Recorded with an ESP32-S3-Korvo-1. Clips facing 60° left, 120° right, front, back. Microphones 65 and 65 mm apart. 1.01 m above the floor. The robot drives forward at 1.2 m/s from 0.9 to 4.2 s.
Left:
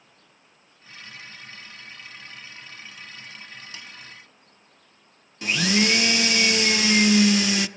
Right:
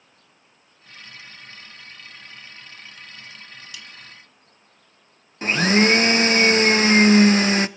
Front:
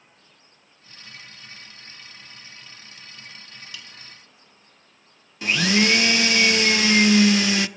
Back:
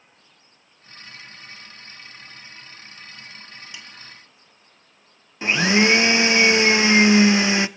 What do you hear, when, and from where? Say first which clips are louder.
3.7 s a snare drum: right 1 dB, even; 115° left, 1.9 m; by 3.9 s 120° left, 1.9 m
5.4 s a blender: right 5 dB, back 3 dB; 130° right, 0.6 m